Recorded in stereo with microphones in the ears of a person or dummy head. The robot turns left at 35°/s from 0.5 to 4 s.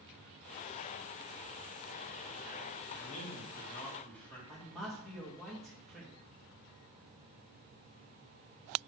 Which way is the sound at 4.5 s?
Centre (ahead or behind).